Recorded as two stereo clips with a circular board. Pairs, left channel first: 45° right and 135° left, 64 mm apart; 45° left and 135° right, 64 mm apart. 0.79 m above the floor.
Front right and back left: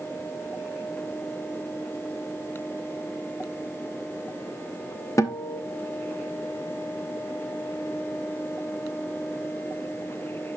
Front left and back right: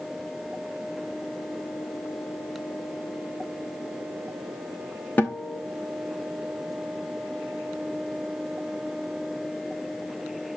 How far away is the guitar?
About 0.8 m.